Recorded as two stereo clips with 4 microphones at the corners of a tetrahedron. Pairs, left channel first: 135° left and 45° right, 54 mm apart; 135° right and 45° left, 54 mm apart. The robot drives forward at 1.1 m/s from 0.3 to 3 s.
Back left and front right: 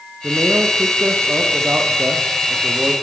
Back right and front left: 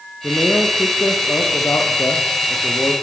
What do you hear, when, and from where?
0.2 s a man speaking: 90° right, 6.5 m; by 2.9 s 115° right, 7 m